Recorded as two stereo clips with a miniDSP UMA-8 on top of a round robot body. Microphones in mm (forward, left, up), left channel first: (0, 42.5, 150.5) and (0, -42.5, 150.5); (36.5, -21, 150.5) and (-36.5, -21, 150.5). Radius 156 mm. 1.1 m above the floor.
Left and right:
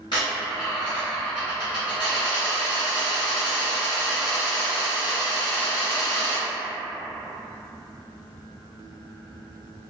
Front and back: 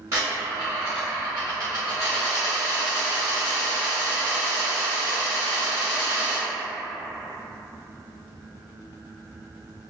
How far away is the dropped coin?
About 0.9 m.